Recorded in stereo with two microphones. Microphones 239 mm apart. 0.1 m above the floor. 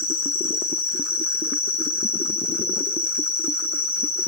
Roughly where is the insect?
Centre.